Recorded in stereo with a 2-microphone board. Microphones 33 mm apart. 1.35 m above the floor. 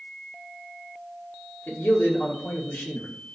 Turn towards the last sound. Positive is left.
turn(degrees=75)  # may be behind; listen again after turning